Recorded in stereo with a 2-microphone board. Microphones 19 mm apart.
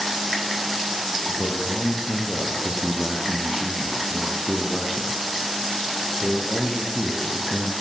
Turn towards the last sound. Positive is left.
turn(degrees=-5)  # may be behind; listen again after turning